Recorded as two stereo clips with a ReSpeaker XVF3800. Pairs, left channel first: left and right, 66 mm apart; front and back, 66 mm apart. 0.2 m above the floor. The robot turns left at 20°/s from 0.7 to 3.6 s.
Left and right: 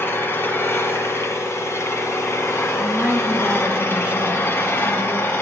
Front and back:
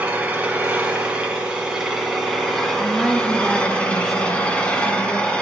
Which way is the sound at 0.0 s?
120° left.